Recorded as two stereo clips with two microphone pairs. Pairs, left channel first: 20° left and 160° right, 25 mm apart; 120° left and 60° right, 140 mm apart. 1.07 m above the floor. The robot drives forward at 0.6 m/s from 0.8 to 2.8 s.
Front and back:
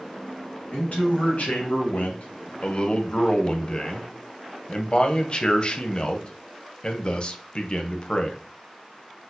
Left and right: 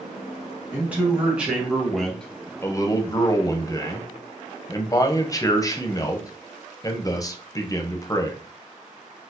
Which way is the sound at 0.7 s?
15° left.